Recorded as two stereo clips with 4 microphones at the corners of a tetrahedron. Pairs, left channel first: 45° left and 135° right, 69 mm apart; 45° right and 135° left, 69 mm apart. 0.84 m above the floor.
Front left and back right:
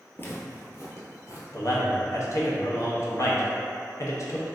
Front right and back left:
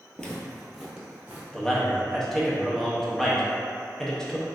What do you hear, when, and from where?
0.2 s footsteps: 15° left, 0.9 m; by 1.4 s 65° left, 1.4 m
1.5 s a man speaking: 30° left, 0.9 m